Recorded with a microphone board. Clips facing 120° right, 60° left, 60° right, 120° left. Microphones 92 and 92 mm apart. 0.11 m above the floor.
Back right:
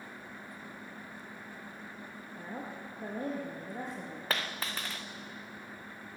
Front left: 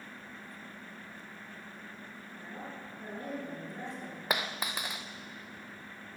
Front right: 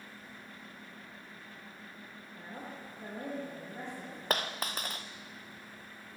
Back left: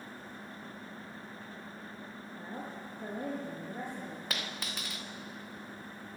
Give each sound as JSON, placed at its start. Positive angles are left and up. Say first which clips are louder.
{"t": 2.4, "sound": "a woman speaking", "louder": "back right 3 dB, back left 2 dB", "azimuth_deg": -165, "distance_m": 2.5}
{"t": 4.3, "sound": "a dropped coin", "louder": "front left 2 dB, front right 10 dB", "azimuth_deg": -15, "distance_m": 0.7}